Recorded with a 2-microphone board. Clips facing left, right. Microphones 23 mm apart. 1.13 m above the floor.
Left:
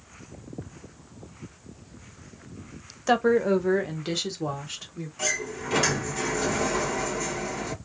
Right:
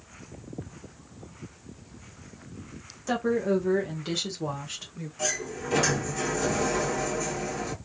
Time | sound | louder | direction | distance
3.1 | a woman speaking | left 5 dB | 40° left (ahead or behind) | 0.9 m
5.2 | a sliding door | left 2 dB | 20° left (ahead or behind) | 2 m